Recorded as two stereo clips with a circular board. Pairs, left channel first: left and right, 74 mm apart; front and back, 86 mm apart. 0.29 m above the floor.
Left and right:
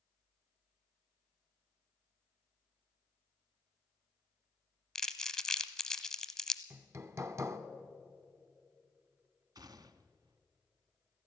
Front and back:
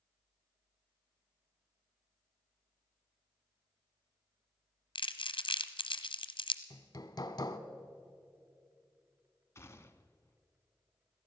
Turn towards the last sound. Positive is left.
turn(degrees=-60)